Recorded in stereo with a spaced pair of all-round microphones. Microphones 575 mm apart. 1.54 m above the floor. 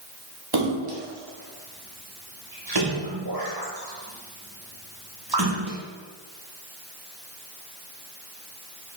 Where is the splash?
40° right (ahead or behind), 1.5 m.